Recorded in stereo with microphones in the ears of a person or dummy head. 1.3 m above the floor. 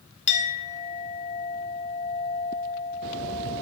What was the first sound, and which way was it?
A clink, 35° left (ahead or behind).